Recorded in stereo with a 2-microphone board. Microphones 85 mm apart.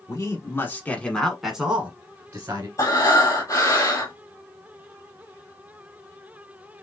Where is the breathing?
40° left (ahead or behind), 1.1 m.